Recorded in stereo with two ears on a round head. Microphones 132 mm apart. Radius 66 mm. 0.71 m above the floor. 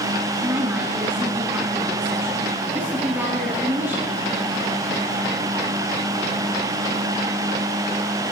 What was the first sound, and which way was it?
A woman speaking, 15° right (ahead or behind).